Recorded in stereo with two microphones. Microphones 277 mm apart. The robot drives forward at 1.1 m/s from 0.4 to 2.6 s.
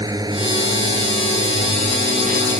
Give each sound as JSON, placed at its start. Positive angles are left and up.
{"t": 0.0, "sound": "a drone", "side_deg": -15}